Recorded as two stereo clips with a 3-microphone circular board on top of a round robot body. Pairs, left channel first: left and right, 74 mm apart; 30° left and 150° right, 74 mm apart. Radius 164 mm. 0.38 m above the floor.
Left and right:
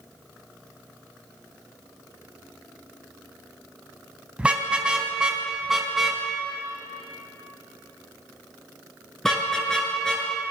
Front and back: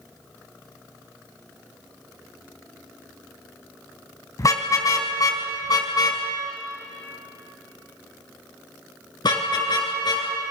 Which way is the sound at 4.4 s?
15° right.